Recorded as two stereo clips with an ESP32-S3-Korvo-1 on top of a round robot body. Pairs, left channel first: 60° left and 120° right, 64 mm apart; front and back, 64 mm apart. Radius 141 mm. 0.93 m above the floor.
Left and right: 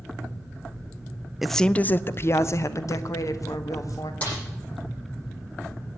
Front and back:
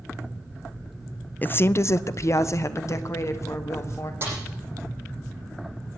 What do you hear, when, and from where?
1.4 s a woman speaking: 40° right, 0.5 m; by 4.1 s 40° left, 1.8 m
4.2 s a snare drum: 125° left, 9.5 m